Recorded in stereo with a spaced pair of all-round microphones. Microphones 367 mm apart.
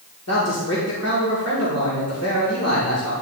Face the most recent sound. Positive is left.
turn(degrees=45)  # may be behind; listen again after turning